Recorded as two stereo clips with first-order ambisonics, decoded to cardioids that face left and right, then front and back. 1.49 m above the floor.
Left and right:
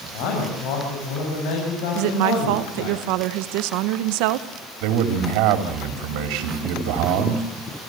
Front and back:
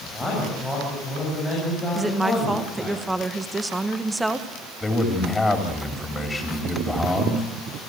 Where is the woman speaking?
100° right, 1.2 m.